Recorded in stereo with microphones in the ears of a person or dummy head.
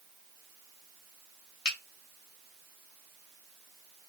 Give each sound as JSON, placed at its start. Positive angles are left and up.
{"t": 1.6, "sound": "a finger snap", "side_deg": 70, "distance_m": 2.5}